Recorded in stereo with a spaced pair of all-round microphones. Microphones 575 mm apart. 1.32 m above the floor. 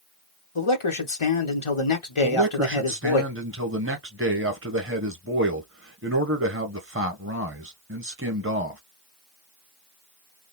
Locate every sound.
0.6 s a man speaking: 55° left (ahead or behind), 1.1 m
2.2 s a man speaking: 20° right (ahead or behind), 1.1 m